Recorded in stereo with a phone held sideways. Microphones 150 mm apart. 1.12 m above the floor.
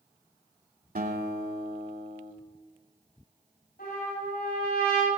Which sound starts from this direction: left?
A trumpet, at 3.8 s.